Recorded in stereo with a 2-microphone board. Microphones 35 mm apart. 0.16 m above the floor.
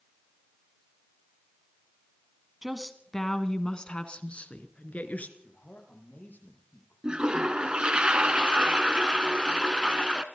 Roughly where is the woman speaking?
Centre.